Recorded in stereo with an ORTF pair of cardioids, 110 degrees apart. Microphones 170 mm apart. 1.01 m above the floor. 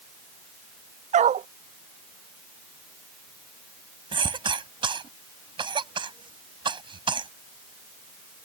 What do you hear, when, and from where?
1.1 s a dog barking: 45° right
4.1 s a cough: 30° right